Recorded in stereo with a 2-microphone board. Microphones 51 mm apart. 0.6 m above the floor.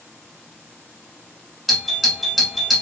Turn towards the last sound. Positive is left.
turn(degrees=0)  # may be behind; listen again after turning